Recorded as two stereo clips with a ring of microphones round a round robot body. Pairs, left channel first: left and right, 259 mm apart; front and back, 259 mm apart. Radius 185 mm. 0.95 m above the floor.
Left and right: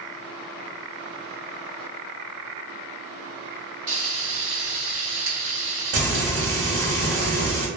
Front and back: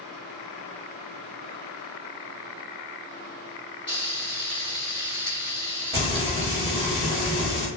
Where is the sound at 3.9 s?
110° right, 0.9 m.